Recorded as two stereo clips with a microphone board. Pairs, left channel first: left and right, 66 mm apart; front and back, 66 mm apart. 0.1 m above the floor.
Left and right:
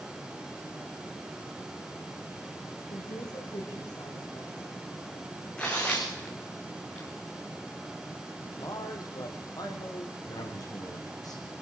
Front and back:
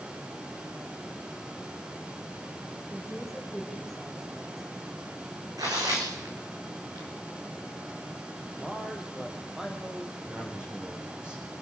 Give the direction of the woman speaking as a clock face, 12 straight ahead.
9 o'clock.